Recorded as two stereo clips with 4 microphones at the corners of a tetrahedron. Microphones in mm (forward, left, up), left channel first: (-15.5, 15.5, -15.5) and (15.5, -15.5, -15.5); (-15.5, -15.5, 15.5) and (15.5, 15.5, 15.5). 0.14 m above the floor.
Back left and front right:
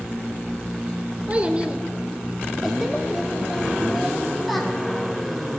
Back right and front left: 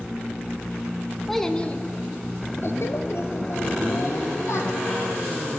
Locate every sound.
1.3 s a child speaking: 50° right, 0.7 m; by 4.7 s 135° right, 3 m